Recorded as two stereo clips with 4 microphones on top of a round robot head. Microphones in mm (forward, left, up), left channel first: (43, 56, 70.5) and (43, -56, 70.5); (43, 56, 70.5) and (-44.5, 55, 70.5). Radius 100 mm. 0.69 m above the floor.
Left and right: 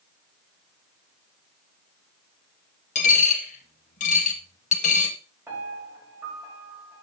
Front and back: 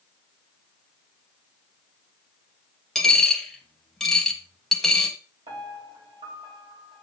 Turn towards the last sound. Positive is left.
turn(degrees=-160)